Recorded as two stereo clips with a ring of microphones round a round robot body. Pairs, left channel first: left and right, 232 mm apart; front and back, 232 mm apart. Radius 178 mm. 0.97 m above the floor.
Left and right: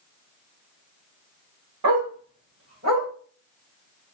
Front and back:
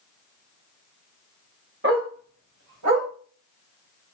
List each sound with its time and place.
1.8 s a dog barking: 120° right, 1.2 m; by 3.1 s 155° right, 2 m